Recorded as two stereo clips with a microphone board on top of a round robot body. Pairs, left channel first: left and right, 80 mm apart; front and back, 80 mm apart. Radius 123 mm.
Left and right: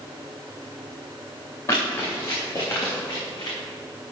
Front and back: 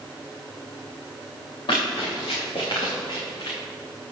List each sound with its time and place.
1.7 s running footsteps: 35° left, 4 m; by 3.6 s 50° left, 3 m